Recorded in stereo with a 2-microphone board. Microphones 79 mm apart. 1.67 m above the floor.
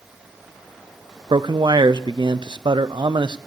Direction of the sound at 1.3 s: 80° right.